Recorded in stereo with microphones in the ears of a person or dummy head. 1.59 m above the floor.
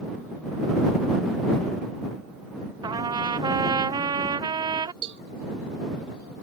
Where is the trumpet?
25° right (ahead or behind).